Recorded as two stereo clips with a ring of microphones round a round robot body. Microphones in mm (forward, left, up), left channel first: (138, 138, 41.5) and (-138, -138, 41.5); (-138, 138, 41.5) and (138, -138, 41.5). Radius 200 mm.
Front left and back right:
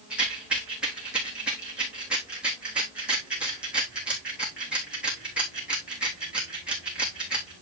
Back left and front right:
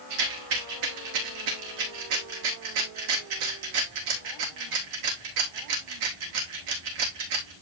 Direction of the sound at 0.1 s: 45° right.